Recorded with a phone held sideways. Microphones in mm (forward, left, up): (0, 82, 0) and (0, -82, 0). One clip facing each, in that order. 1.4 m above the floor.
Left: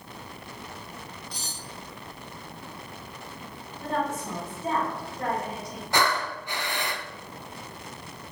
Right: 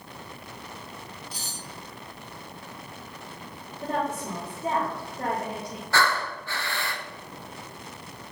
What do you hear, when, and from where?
1.3 s cutlery clinking: 5° right (ahead or behind), 5 m
3.8 s a woman speaking: 30° right (ahead or behind), 4 m
5.9 s breathing: 20° left (ahead or behind), 0.8 m